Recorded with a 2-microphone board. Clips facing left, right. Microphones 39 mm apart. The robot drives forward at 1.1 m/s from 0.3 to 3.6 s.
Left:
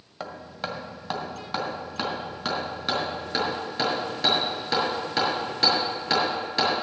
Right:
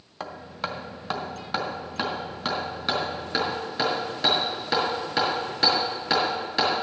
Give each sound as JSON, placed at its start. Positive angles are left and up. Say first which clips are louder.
{"t": 0.2, "sound": "hammering", "louder": "right 1 dB", "side_deg": 0, "distance_m": 1.1}